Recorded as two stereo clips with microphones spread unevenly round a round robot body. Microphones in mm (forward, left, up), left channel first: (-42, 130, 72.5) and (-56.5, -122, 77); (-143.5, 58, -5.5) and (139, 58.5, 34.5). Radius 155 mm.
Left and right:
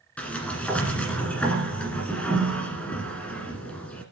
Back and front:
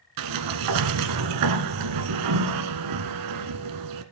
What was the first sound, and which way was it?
A sliding door, straight ahead.